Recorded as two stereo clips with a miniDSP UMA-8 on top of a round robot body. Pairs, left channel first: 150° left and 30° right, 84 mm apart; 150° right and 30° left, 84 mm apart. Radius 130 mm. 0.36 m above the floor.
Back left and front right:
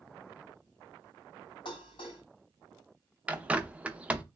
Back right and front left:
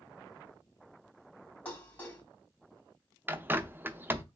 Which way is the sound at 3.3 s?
20° left.